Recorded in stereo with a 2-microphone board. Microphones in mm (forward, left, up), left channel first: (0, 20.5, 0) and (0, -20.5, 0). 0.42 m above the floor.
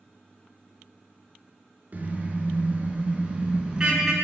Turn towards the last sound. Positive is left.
turn(degrees=-15)  # may be behind; listen again after turning